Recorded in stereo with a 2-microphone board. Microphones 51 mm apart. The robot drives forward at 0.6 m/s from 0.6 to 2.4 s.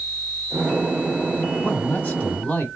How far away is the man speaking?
About 1.2 m.